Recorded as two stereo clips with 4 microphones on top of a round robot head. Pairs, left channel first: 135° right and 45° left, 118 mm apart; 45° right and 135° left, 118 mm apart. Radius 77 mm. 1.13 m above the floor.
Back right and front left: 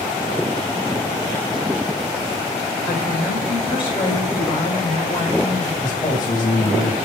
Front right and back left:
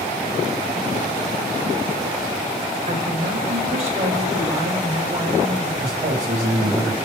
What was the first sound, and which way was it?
A woman speaking, 175° left.